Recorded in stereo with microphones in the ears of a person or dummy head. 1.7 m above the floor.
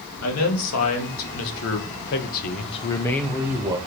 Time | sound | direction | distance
0.2 | a man speaking | 85° left | 2.5 m